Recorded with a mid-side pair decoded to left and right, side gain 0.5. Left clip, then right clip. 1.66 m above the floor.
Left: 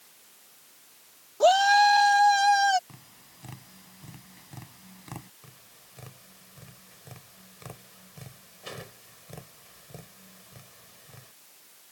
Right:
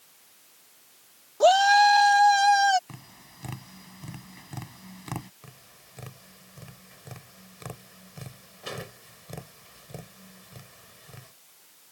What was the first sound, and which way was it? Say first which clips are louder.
A shout: right 1 dB; 15° right.